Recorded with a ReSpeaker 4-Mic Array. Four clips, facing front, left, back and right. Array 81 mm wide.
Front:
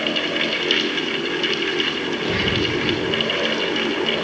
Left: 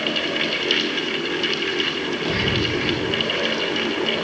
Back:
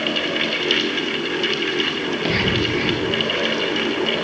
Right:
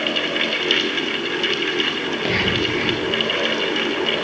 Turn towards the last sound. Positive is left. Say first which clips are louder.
# right 2 dB, back 1 dB
turn(degrees=-115)